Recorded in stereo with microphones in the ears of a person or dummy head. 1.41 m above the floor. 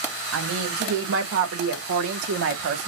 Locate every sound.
0.3 s a woman speaking: 85° right, 2 m; by 2.9 s 55° right (ahead or behind), 1.0 m